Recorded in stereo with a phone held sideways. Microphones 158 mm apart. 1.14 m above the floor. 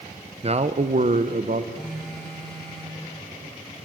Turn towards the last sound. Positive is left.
turn(degrees=0)  # may be behind; listen again after turning